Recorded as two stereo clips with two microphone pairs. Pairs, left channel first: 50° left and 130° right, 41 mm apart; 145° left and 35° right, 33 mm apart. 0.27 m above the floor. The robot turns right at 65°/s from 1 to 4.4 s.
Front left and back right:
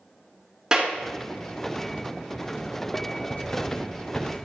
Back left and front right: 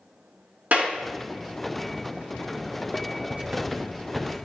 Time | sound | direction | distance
0.7 | a clap | 60° right | 3.5 m
3.3 | writing | 5° right | 1.4 m